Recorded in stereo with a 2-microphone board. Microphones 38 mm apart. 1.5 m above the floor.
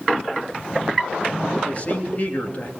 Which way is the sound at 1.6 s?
35° left (ahead or behind).